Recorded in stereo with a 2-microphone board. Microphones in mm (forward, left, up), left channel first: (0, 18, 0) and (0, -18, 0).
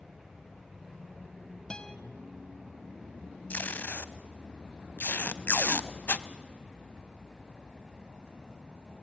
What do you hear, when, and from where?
1.7 s a guitar: 20° left (ahead or behind), 0.8 m
3.5 s tape being pulled: 50° left (ahead or behind), 0.6 m